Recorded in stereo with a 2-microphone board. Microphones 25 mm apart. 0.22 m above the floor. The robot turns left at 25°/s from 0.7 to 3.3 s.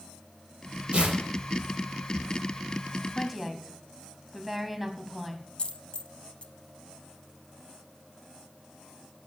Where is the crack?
I don't hear a crack.